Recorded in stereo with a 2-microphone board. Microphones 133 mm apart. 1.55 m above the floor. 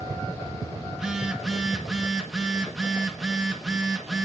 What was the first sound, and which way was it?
A phone buzzing, 5° right (ahead or behind).